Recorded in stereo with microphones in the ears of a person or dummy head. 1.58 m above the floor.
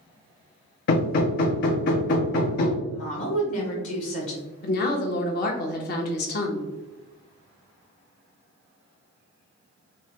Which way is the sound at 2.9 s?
50° left (ahead or behind).